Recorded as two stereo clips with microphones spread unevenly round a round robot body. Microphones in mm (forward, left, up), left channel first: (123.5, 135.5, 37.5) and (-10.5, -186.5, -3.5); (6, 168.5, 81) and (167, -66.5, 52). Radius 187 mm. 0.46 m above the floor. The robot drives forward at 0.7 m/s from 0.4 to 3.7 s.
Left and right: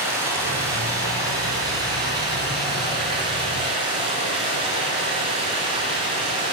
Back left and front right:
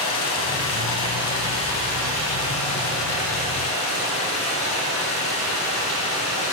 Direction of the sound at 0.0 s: 165° left.